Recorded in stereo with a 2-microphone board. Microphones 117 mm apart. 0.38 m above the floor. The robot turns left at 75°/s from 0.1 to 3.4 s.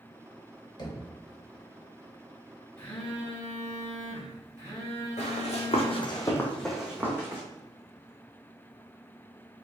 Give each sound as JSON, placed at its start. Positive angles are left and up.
{"t": 0.8, "sound": "knocking", "side_deg": 35, "distance_m": 1.0}
{"t": 2.8, "sound": "a phone buzzing", "azimuth_deg": 20, "distance_m": 2.0}
{"t": 5.2, "sound": "running footsteps", "side_deg": 80, "distance_m": 1.8}